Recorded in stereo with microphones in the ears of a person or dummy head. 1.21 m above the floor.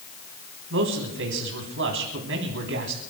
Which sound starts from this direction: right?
A man speaking, at 0.7 s.